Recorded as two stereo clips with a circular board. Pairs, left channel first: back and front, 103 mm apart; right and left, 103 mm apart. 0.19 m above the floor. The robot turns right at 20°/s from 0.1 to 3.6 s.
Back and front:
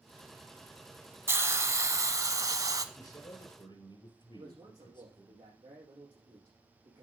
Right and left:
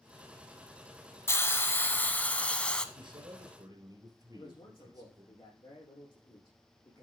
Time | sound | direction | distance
1.3 | a hiss | 45° right | 0.8 m
3.0 | a man speaking | 130° left | 3 m
4.3 | a man speaking | 50° right | 7 m